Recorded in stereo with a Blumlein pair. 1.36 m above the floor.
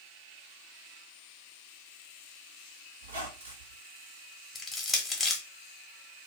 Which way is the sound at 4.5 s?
15° left.